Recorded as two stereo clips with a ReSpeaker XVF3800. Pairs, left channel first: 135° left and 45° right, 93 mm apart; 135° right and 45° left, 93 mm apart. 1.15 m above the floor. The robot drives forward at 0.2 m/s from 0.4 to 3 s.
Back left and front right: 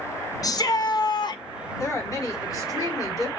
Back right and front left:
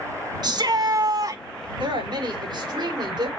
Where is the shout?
85° left, 1.1 m; by 1.4 s 95° left, 1.1 m.